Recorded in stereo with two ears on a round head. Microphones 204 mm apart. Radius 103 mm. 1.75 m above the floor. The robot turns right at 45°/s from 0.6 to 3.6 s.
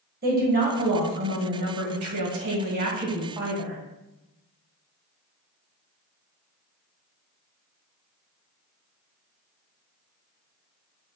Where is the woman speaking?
140° right, 2.5 m; by 3.8 s 5° right, 2.5 m.